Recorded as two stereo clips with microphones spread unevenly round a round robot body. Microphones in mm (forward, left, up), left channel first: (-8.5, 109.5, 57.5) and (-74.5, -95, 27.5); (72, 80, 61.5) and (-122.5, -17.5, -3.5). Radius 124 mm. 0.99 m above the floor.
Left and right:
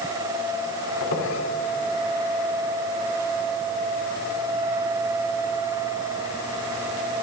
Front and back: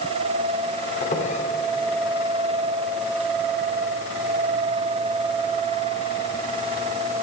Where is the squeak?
85° left, 2 m.